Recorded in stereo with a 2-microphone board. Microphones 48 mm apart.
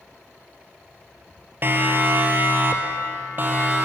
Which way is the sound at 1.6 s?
45° right (ahead or behind).